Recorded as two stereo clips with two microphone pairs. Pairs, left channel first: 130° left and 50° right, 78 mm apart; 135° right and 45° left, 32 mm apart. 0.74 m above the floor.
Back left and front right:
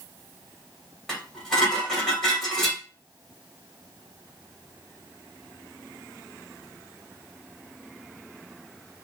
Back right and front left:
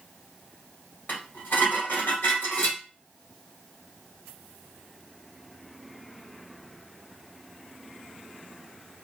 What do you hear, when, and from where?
1.1 s dishes clattering: 145° right, 2 m